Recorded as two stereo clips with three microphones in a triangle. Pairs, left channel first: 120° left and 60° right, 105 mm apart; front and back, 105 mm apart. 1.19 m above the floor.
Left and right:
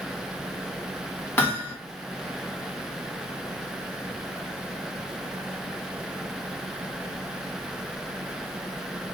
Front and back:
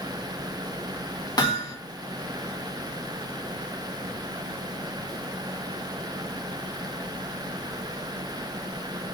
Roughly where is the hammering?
Ahead left.